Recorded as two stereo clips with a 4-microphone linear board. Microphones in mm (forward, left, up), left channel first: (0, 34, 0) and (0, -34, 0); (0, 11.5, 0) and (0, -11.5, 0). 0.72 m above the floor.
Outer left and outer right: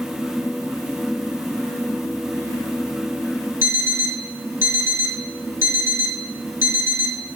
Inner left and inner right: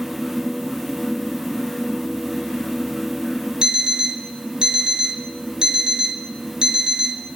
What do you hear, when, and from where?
3.6 s an alarm clock: 40° right (ahead or behind), 0.8 m